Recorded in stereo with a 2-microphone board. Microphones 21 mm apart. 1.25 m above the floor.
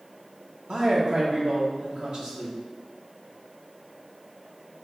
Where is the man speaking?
50° right (ahead or behind), 0.8 m.